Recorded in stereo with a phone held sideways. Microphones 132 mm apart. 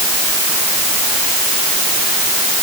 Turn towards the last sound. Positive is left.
No sound to turn to.